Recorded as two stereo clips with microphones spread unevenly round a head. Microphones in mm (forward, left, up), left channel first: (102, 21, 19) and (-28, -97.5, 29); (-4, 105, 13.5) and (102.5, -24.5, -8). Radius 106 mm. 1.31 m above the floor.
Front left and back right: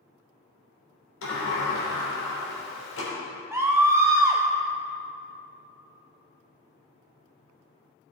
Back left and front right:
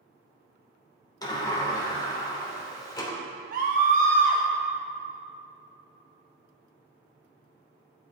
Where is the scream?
60° right, 0.9 m.